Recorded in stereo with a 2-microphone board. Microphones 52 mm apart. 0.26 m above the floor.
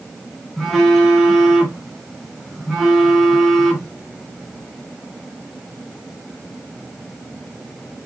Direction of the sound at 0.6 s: 5° right (ahead or behind).